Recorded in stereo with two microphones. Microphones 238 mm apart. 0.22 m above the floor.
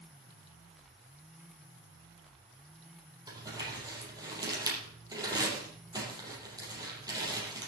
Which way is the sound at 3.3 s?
15° right (ahead or behind).